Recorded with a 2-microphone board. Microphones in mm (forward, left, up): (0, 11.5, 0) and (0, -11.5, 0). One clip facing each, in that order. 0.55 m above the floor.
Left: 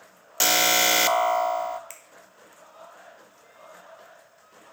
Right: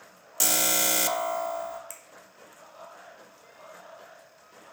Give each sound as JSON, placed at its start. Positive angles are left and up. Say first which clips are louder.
{"t": 0.4, "sound": "an alarm", "louder": "left 6 dB", "side_deg": 35, "distance_m": 0.5}
{"t": 1.9, "sound": "a finger snap", "louder": "even", "side_deg": 25, "distance_m": 1.8}